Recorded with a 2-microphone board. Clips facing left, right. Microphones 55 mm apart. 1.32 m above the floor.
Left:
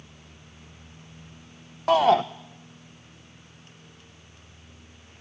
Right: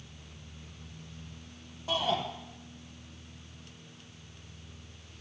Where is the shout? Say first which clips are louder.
Left 12 dB; 65° left (ahead or behind), 0.9 m.